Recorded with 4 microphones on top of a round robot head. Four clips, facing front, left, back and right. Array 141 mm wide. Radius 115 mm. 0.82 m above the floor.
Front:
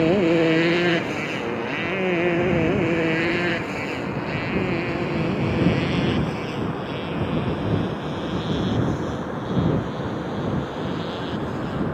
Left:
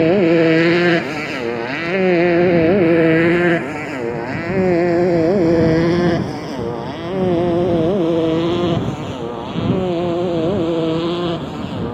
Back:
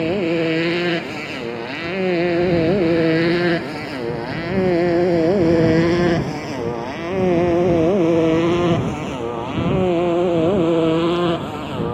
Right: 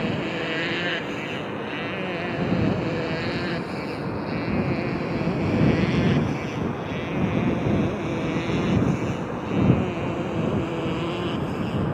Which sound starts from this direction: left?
A motorcycle, at 0.0 s.